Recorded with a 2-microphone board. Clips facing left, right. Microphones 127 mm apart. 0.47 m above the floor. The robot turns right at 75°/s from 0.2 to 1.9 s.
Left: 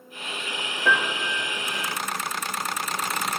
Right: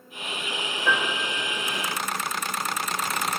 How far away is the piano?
About 4 m.